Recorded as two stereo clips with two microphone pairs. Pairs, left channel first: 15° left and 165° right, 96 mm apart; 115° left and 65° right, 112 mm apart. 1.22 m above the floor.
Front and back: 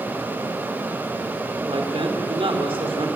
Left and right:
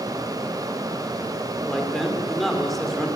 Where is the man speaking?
155° right, 3 m.